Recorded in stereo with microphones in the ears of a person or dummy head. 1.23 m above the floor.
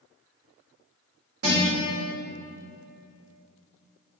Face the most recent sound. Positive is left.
turn(degrees=-85)